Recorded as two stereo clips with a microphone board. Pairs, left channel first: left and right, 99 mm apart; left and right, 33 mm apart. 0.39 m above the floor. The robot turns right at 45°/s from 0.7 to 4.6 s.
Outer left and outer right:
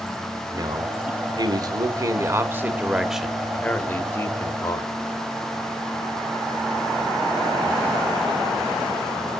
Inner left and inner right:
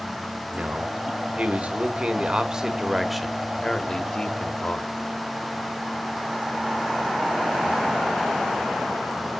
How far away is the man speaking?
About 1.1 m.